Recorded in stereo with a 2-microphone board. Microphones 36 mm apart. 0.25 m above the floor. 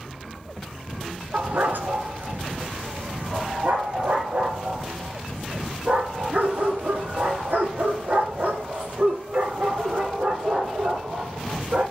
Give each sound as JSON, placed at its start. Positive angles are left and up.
{"t": 1.3, "sound": "a dog barking", "side_deg": -70, "distance_m": 1.1}